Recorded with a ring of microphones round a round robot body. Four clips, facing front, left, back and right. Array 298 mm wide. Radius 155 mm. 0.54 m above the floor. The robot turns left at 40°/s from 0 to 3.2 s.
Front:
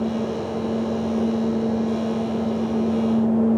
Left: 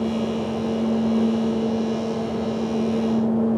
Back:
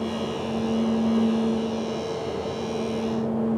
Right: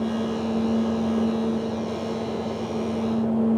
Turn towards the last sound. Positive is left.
No sound to turn to.